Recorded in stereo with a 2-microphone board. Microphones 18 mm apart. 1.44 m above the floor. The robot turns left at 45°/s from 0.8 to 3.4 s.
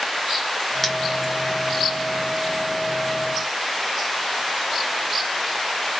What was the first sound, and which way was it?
Cutlery clinking, 10° left (ahead or behind).